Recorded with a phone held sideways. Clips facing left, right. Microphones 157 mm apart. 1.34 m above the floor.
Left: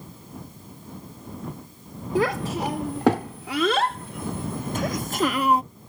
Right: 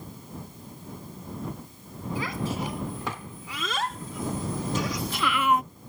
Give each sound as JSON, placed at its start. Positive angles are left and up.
{"t": 2.1, "sound": "a child speaking", "side_deg": 75}